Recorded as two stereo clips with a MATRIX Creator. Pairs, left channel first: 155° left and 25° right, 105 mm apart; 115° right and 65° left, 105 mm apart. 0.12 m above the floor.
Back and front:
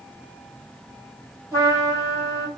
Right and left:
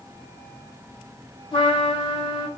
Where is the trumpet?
80° right, 2.5 m.